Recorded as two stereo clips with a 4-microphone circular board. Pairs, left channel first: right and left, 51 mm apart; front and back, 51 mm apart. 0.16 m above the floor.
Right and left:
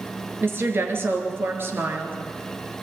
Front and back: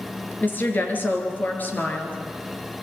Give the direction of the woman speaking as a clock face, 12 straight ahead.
10 o'clock.